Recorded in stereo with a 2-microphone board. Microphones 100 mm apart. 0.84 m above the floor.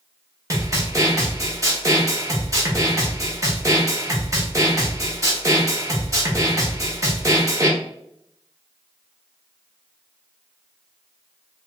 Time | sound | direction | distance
0.5 | a snare drum | 30° right (ahead or behind) | 1.1 m